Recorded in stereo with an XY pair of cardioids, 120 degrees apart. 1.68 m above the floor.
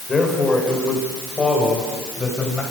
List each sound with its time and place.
0.1 s a man speaking: 25° left, 6 m; by 2.6 s 10° left, 7.5 m